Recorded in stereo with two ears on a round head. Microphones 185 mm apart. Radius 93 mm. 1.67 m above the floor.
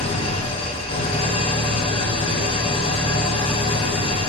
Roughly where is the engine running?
Left.